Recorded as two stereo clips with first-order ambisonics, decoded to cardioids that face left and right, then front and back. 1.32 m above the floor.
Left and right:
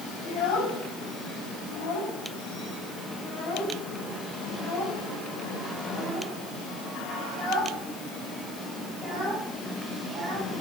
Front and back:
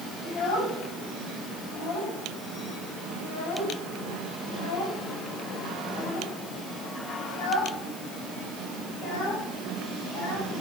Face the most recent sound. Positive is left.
turn(degrees=-10)